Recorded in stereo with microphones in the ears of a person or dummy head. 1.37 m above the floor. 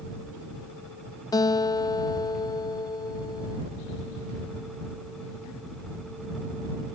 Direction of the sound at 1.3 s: 20° left (ahead or behind).